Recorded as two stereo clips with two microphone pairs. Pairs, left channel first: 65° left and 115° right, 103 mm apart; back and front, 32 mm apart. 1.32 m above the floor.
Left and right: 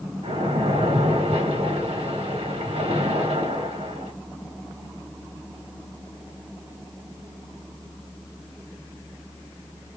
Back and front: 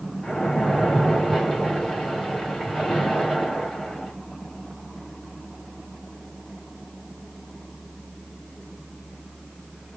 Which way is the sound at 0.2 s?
115° right.